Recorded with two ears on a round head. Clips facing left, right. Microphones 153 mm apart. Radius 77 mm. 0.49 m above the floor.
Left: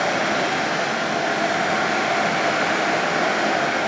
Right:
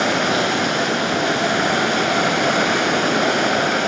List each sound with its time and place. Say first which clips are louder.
0.0 s running water: right 2 dB; 55° right (ahead or behind), 1.3 m